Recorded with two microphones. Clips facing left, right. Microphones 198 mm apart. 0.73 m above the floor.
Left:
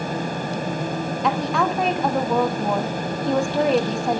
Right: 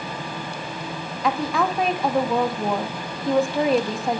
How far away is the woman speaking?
About 1.2 m.